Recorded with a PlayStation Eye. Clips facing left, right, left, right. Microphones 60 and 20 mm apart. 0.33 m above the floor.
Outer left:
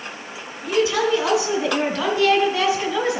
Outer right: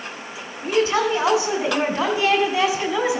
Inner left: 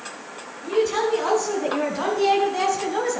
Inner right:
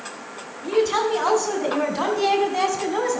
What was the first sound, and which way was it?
A woman speaking, 40° right (ahead or behind).